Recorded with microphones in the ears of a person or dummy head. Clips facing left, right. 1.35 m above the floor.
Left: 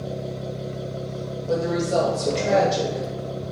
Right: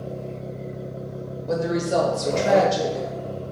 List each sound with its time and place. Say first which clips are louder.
1.5 s a woman speaking: even; 20° right (ahead or behind), 1.0 m